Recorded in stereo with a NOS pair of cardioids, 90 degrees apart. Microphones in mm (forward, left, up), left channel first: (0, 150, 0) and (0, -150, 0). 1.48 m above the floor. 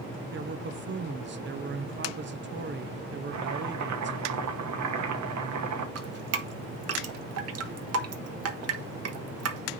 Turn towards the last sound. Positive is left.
turn(degrees=-55)